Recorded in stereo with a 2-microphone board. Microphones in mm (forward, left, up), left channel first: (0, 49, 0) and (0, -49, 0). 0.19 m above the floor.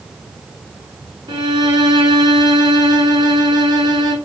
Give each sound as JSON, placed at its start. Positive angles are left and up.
{"t": 1.3, "sound": "a violin", "side_deg": -45, "distance_m": 0.9}